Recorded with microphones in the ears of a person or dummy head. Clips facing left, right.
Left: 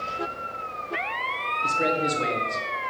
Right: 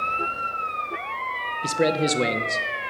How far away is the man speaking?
About 0.8 m.